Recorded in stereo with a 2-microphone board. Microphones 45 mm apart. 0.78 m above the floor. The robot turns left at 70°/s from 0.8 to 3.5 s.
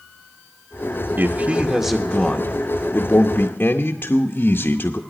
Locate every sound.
1.2 s a man speaking: 115° right, 0.7 m; by 5.0 s 80° left, 0.7 m